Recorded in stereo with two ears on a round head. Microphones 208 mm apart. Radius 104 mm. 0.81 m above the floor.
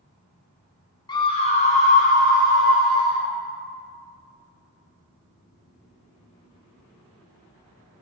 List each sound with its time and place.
1.1 s a scream: 20° left (ahead or behind), 0.5 m; by 3.2 s 40° left (ahead or behind), 1.6 m